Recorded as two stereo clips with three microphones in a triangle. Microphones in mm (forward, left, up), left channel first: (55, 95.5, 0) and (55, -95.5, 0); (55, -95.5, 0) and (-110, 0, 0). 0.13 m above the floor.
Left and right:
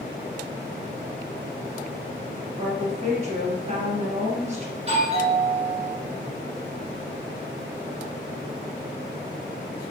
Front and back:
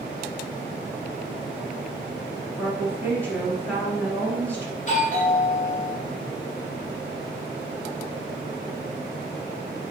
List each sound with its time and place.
2.6 s a woman speaking: 105° right, 1.5 m
4.8 s a doorbell: 50° right, 2.5 m